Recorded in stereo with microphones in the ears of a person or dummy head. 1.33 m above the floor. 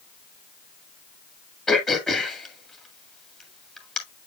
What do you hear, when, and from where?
1.7 s throat clearing: 5° left (ahead or behind), 1.9 m